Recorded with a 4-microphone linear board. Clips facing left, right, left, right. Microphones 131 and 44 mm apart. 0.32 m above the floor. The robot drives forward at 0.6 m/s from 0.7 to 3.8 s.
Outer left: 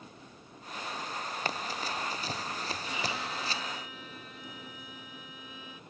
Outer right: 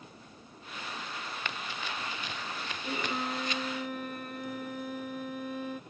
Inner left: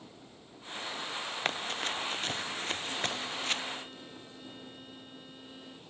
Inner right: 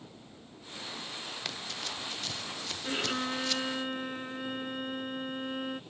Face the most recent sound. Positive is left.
turn(degrees=-60)  # may be behind; listen again after turning